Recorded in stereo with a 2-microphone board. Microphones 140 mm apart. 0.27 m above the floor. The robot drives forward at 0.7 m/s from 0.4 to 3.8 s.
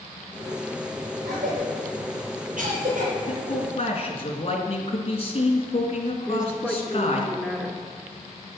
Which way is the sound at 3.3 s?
50° left (ahead or behind).